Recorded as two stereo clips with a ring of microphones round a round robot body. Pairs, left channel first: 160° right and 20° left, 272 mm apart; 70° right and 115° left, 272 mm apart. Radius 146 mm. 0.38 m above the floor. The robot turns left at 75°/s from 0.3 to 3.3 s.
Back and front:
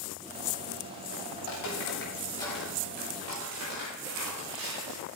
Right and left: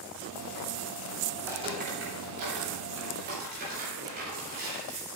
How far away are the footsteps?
About 5 m.